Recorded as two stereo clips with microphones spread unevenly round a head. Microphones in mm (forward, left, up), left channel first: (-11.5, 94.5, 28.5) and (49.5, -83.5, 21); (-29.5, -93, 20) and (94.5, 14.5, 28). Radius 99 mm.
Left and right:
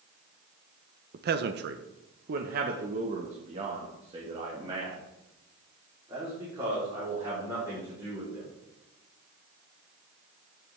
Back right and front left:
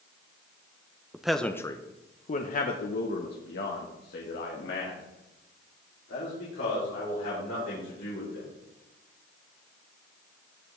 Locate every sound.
1.1 s a man speaking: 45° right, 0.8 m; by 8.5 s 150° right, 4.5 m